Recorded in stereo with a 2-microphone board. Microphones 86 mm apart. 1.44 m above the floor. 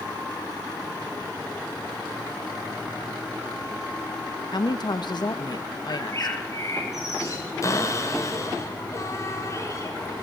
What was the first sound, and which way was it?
A woman speaking, 60° left (ahead or behind).